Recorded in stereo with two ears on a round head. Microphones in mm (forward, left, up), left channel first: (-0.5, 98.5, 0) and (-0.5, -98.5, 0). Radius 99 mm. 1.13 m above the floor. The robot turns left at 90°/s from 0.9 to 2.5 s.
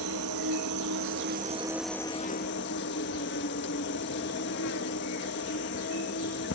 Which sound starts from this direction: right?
An insect, at 0.0 s.